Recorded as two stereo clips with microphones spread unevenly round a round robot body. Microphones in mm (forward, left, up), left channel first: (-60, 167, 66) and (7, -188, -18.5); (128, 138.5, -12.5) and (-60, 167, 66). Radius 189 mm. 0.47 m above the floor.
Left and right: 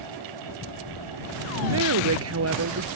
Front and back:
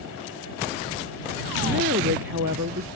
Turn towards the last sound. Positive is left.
turn(degrees=-130)